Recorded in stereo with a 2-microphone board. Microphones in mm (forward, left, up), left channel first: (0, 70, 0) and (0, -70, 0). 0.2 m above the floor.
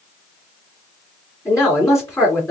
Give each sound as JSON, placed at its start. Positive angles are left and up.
{"t": 1.4, "sound": "a man speaking", "side_deg": 20, "distance_m": 2.0}